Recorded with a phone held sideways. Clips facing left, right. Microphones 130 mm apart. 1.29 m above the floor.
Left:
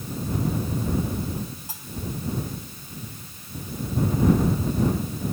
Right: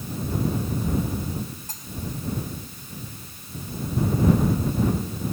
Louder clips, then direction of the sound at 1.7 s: Even; 10° left (ahead or behind).